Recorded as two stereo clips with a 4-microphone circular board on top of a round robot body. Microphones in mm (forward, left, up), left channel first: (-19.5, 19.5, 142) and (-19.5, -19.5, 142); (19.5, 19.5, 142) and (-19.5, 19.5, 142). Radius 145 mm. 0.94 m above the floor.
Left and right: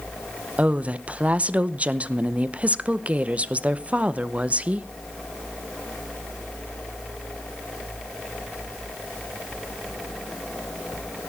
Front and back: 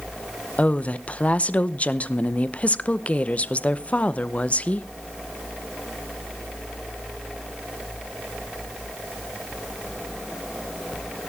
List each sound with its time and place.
0.6 s a woman speaking: 45° right, 0.9 m